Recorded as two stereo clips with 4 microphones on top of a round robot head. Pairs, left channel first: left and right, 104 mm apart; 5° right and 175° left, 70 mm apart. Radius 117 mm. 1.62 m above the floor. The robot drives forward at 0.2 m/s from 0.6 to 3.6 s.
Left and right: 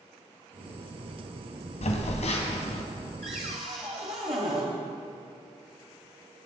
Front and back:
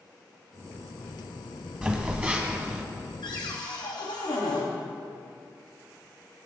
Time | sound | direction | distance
1.8 | a phone buzzing | 105° left | 1.8 m
3.2 | a cupboard door | 45° right | 1.5 m